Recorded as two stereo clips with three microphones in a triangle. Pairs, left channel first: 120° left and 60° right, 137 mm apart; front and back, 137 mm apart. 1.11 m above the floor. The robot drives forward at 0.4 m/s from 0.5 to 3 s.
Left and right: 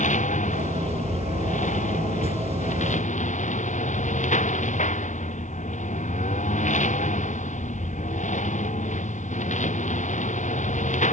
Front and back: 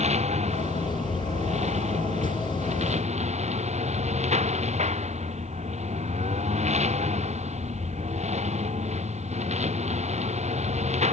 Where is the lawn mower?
145° left.